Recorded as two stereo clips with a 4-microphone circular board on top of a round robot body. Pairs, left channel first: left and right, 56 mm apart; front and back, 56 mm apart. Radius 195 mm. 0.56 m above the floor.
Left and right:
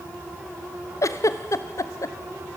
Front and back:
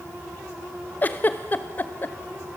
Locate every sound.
1.0 s a giggle: 60° left, 0.6 m